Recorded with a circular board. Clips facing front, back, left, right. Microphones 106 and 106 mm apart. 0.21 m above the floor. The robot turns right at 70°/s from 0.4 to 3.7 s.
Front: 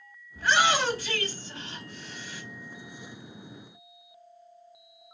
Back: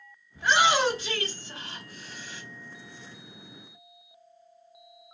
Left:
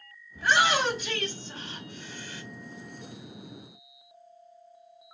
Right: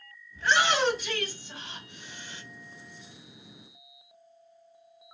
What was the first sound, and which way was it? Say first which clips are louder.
A shout: back 1 dB, left 1 dB; 150° left.